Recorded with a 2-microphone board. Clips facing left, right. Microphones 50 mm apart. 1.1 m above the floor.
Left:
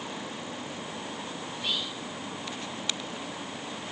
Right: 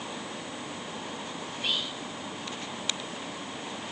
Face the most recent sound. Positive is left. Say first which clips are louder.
# right 1 dB
turn(degrees=-50)  # may be behind; listen again after turning